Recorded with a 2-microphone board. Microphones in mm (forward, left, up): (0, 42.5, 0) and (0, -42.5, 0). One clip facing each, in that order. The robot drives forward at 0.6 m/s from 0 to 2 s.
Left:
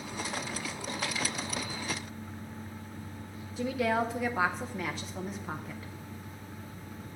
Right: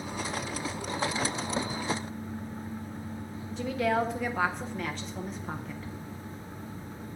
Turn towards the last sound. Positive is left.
turn(degrees=5)  # may be behind; listen again after turning